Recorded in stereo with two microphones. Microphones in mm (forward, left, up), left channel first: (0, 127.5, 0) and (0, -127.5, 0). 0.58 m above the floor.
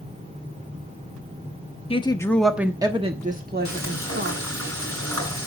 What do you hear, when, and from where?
1.9 s a woman speaking: 20° left (ahead or behind), 0.9 m; by 4.4 s 55° right (ahead or behind), 1.5 m
3.6 s frying: 65° right (ahead or behind), 7 m